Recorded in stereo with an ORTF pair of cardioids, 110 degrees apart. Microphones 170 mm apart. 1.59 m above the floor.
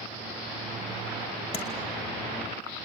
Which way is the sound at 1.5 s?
30° left.